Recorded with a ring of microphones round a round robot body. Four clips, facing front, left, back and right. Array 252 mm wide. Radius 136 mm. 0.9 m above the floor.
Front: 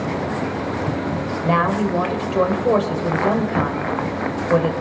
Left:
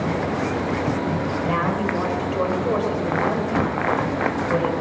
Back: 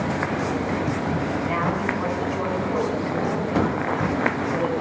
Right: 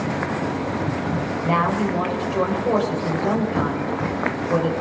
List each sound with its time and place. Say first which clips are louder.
1.4 s a woman speaking: right 4 dB, front 10 dB; 5° right, 4 m